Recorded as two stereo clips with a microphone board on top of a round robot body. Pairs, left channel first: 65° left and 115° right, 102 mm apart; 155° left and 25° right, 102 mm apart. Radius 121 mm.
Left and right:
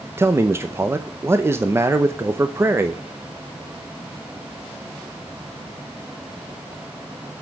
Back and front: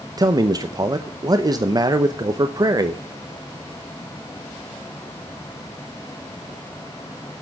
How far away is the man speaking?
About 0.9 m.